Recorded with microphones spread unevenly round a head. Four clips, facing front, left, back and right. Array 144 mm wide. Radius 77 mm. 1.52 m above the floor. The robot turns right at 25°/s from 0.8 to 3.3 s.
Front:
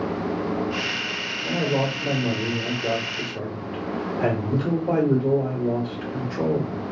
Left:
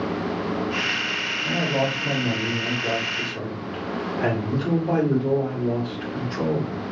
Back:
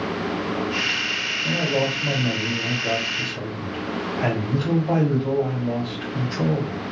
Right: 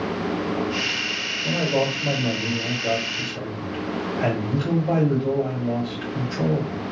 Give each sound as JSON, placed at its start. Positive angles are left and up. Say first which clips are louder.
{"t": 1.4, "sound": "a man speaking", "louder": "right 2 dB, even", "azimuth_deg": -35, "distance_m": 1.8}